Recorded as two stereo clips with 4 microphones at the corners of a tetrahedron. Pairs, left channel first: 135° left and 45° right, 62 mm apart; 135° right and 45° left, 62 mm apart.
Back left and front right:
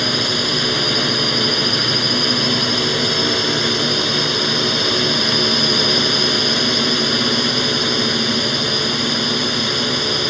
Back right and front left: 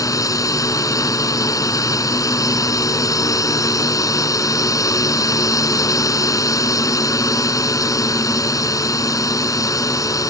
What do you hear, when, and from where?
0.0 s a drone: 135° right